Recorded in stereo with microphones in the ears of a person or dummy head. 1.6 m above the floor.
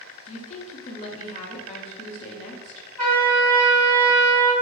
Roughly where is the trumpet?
Centre.